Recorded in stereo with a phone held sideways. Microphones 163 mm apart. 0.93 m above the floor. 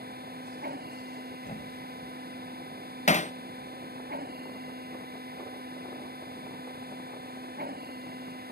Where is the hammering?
50° left (ahead or behind).